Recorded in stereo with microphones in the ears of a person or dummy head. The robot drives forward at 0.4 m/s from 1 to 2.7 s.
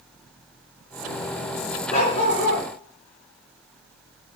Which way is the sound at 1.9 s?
45° left (ahead or behind).